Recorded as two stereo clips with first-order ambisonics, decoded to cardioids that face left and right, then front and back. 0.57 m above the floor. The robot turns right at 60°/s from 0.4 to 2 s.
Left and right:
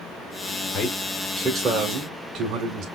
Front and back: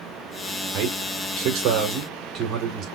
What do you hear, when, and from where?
0.7 s a man speaking: 155° left, 1.6 m; by 2.9 s 130° right, 1.6 m